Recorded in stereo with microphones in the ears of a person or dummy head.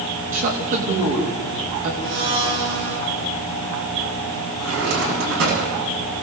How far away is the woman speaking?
About 3.5 m.